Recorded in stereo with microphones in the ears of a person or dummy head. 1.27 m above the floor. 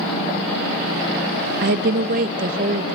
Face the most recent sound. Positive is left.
turn(degrees=-45)  # may be behind; listen again after turning